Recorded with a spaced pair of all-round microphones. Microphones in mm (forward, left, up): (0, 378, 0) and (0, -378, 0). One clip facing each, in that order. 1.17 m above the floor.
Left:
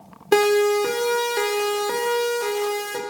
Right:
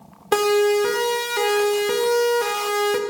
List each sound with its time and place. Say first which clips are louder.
0.3 s a siren: even; 20° right (ahead or behind), 3 m; by 3.0 s 80° right, 2 m